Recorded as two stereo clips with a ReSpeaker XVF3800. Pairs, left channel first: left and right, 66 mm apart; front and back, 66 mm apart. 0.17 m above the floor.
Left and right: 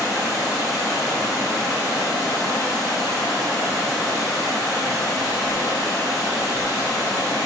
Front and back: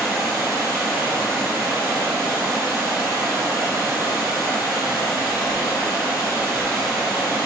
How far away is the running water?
About 4 m.